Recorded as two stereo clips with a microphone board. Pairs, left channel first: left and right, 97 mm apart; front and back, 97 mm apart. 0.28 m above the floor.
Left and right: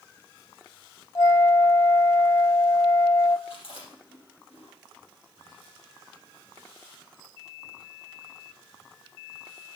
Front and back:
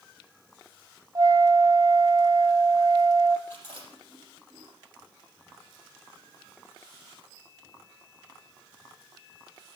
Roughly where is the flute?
Behind left.